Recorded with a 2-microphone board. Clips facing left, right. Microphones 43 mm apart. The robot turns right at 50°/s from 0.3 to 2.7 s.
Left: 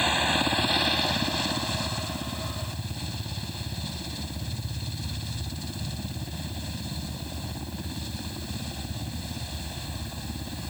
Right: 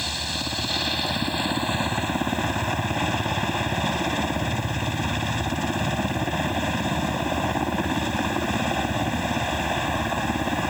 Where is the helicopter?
145° left; by 10.7 s 95° right.